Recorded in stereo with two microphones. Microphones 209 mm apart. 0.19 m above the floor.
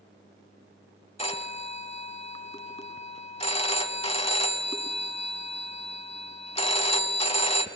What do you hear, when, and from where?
1.2 s a phone ringing: 30° left (ahead or behind), 1.0 m